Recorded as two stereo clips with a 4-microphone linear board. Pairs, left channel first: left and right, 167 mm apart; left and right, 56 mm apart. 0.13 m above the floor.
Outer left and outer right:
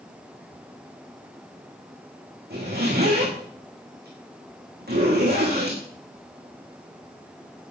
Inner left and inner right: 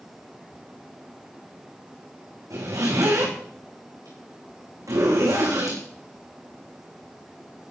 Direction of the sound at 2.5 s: 70° right (ahead or behind).